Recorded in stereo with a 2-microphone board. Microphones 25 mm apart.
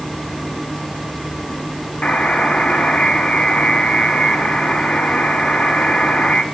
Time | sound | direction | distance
2.0 | a buzzer | 60° left (ahead or behind) | 2.5 m